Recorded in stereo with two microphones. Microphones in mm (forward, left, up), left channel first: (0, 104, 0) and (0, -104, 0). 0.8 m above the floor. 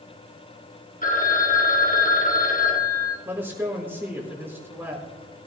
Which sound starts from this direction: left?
A phone ringing, at 1.0 s.